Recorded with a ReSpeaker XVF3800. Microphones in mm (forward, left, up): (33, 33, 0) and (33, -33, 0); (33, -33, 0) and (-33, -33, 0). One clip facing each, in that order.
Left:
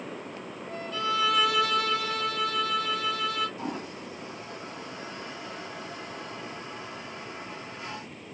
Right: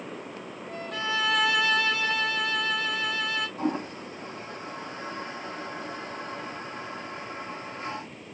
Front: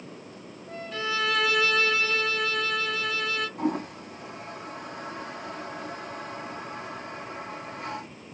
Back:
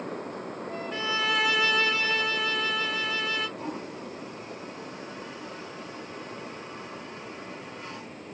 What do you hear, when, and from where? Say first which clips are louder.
0.9 s a violin: left 1 dB, front 1 dB; 110° right, 1.4 m
3.6 s a toilet flushing: right 5 dB, front 6 dB; 35° right, 0.8 m